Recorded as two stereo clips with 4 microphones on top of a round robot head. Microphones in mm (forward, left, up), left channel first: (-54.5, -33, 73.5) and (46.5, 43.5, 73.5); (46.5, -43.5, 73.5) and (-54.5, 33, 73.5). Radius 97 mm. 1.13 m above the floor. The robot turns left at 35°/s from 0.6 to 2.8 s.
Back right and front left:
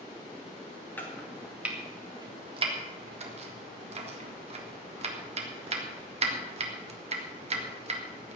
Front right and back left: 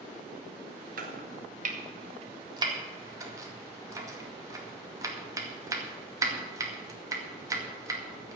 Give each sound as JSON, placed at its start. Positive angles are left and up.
{"t": 1.0, "sound": "chopping", "azimuth_deg": 140, "distance_m": 2.0}